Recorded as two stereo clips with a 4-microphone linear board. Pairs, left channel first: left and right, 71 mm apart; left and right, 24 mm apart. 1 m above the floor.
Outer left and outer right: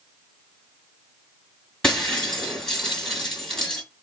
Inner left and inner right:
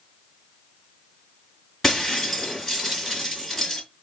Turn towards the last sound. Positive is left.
turn(degrees=10)  # may be behind; listen again after turning